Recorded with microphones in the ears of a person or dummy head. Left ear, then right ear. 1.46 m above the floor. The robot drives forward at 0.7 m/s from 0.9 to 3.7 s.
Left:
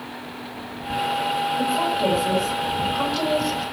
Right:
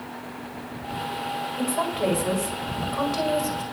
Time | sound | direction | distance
1.6 | a woman speaking | 45° right (ahead or behind) | 6 m